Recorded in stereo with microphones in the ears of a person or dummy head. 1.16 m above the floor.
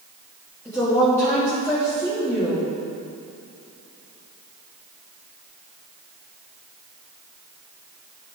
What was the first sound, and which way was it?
A woman speaking, 15° left (ahead or behind).